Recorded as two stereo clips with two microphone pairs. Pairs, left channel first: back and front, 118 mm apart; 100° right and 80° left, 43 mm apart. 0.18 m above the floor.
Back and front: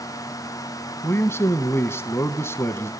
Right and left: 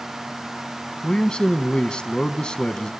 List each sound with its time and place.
1.0 s a man speaking: 145° right, 1.1 m